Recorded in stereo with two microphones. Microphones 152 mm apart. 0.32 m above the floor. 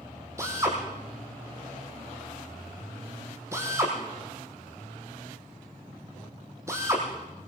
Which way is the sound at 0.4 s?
20° right (ahead or behind).